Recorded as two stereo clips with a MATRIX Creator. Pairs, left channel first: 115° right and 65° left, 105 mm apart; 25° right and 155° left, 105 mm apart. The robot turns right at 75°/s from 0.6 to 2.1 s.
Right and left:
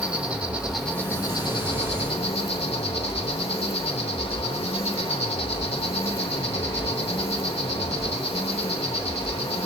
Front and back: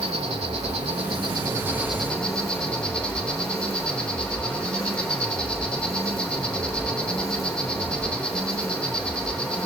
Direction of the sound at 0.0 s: 145° left.